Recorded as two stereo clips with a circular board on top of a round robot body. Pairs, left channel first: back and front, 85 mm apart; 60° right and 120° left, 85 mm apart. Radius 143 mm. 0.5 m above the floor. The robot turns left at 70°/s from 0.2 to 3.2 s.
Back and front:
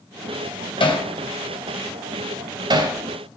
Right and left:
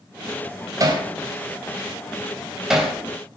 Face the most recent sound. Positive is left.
turn(degrees=0)